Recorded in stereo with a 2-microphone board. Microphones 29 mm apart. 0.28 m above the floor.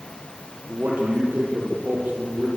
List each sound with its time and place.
0.7 s a man speaking: 70° right (ahead or behind), 8.5 m; by 2.5 s 75° right (ahead or behind), 8.5 m